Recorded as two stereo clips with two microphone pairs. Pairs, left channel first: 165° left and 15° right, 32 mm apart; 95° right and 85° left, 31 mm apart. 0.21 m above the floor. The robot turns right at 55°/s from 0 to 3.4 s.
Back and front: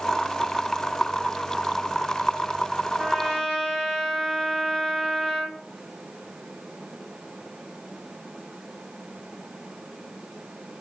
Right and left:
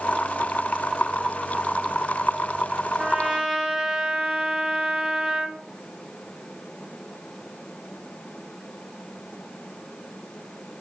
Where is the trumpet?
90° left, 0.8 m; by 5.6 s 115° left, 0.8 m.